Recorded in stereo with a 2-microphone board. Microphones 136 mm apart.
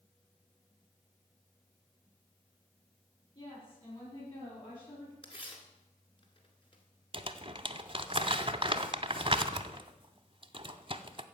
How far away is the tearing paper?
About 2.0 m.